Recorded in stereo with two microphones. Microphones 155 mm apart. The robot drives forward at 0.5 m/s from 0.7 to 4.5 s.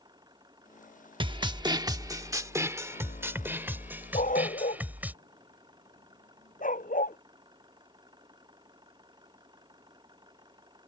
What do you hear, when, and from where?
0.0 s an engine running: 25° right (ahead or behind); by 10.9 s 30° right (ahead or behind)
1.2 s a snare drum: 30° right (ahead or behind); by 5.1 s 10° right (ahead or behind)
4.1 s a dog barking: 60° left (ahead or behind)